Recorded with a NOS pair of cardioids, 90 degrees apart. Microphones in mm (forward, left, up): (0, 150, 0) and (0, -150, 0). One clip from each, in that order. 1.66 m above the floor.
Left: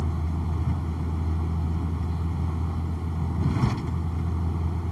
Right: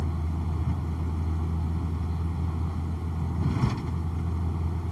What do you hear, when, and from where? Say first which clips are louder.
0.0 s a vehicle: left 2 dB; 15° left